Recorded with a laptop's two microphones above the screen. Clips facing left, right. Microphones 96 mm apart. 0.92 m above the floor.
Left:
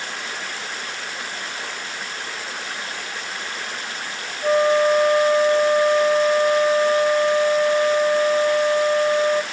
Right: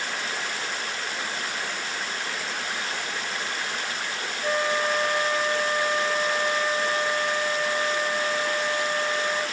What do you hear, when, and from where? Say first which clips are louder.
4.4 s a flute: left 9 dB; 25° left (ahead or behind), 1.3 m